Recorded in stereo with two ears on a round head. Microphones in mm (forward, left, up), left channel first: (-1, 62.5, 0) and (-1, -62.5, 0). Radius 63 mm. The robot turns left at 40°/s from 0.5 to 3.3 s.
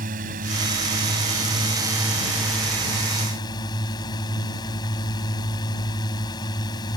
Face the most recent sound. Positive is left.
turn(degrees=145)